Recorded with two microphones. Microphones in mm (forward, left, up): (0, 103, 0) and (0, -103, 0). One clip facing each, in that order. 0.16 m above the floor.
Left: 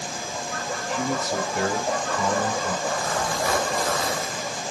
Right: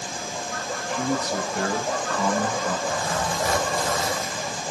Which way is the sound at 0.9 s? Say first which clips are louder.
Right 1 dB; 5° left (ahead or behind).